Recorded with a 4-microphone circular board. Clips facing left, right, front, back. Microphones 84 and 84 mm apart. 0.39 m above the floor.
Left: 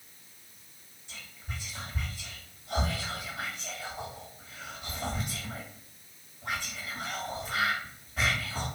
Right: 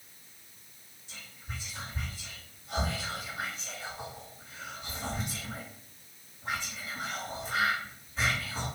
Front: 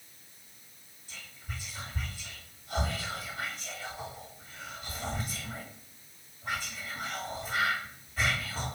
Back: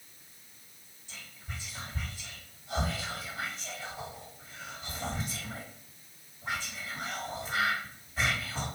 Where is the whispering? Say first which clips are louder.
Left 1 dB, front 1 dB; 105° left, 1.8 m.